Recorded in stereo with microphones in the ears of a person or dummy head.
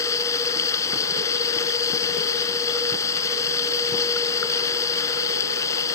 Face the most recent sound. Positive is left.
turn(degrees=15)  # may be behind; listen again after turning